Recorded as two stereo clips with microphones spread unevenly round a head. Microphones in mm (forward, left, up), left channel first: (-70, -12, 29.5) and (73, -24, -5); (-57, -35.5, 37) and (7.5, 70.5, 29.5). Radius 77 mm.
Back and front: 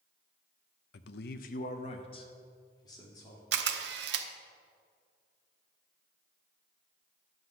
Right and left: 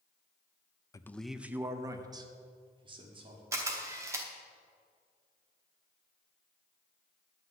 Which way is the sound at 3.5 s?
15° right.